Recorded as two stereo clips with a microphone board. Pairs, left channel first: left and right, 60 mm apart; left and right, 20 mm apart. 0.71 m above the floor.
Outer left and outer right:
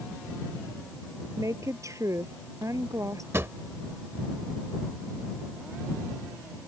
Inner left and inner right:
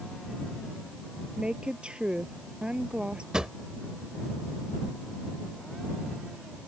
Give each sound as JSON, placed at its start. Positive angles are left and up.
{"t": 1.4, "sound": "a woman speaking", "side_deg": -60}
{"t": 3.3, "sound": "a drawer", "side_deg": -45}